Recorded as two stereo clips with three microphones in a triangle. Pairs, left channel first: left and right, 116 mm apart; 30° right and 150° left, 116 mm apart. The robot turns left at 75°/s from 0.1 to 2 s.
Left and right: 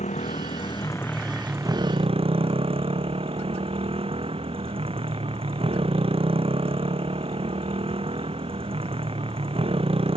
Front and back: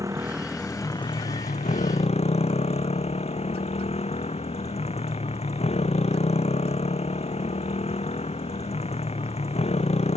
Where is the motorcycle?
90° left; by 10.2 s 55° right.